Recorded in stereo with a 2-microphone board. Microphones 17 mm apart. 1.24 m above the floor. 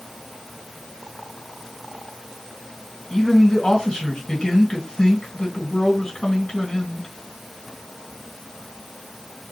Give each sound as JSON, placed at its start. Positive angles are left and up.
{"t": 3.1, "sound": "a man speaking", "side_deg": 60, "distance_m": 2.0}